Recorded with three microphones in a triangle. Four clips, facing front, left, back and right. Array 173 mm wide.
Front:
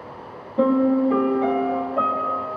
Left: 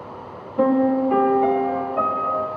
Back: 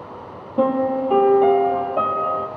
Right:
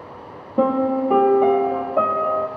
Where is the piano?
105° right, 2 m.